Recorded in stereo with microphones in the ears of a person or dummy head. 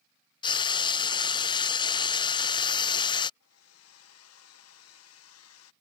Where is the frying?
25° left (ahead or behind).